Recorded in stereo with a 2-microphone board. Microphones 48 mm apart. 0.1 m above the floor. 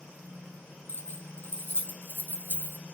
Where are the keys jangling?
60° left (ahead or behind), 2 m; by 2.8 s 70° left (ahead or behind), 2.5 m.